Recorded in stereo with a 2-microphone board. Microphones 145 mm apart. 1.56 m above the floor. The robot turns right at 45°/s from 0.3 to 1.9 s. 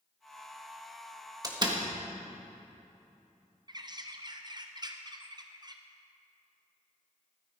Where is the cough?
I don't hear a cough.